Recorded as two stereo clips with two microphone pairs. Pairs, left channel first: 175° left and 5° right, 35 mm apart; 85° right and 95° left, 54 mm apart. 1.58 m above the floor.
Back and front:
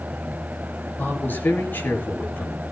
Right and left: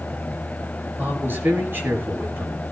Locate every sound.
1.0 s a man speaking: 145° left, 7.5 m